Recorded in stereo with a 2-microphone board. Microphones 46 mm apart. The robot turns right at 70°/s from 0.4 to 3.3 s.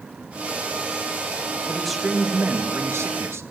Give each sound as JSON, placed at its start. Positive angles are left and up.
{"t": 1.7, "sound": "a man speaking", "azimuth_deg": 165, "distance_m": 2.0}